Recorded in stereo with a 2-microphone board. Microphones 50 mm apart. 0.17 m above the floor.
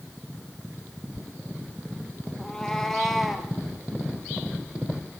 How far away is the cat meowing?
About 2 m.